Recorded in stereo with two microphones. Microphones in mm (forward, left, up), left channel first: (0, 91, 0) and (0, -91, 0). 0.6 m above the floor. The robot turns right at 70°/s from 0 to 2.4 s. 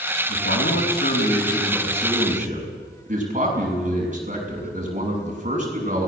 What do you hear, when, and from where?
0.3 s a man speaking: 75° left, 6.5 m; by 6.1 s 135° right, 6.5 m